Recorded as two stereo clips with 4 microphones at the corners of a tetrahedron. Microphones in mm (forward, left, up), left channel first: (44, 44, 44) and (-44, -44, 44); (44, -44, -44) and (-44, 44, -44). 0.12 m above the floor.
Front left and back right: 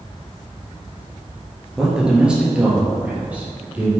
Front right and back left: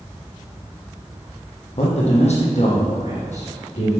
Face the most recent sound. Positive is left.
turn(degrees=-55)